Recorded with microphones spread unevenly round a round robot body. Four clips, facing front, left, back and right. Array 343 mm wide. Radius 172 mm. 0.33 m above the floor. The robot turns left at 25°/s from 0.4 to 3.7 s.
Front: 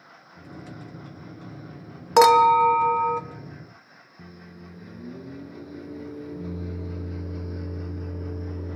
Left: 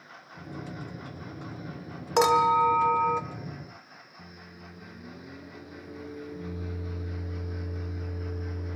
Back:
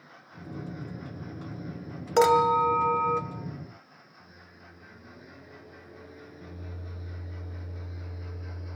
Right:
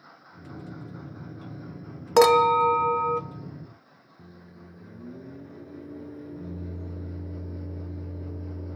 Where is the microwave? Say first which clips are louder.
Right 1 dB, front 11 dB; 5° left, 4 m.